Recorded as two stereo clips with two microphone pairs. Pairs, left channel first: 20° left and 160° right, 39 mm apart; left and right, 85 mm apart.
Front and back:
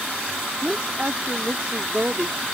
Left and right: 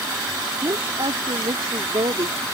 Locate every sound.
0.6 s a woman speaking: 100° right